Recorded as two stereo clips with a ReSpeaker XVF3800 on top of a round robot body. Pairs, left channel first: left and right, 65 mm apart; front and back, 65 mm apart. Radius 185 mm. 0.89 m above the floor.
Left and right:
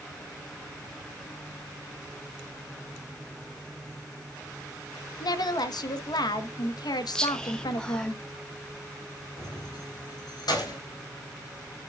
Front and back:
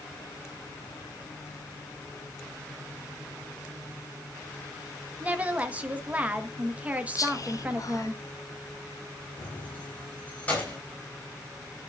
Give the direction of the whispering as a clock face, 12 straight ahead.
12 o'clock.